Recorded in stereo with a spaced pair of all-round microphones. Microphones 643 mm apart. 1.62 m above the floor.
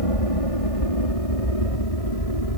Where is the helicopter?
60° left (ahead or behind).